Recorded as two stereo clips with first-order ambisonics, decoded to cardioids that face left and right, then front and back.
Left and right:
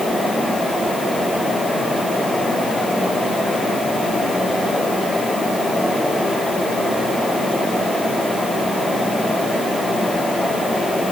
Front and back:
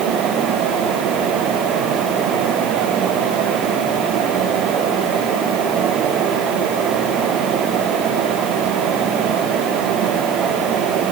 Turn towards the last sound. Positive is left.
No sound to turn to.